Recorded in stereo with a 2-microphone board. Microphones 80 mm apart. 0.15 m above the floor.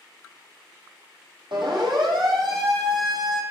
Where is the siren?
75° right (ahead or behind), 6.5 m; by 3.4 s 70° right (ahead or behind), 5.5 m.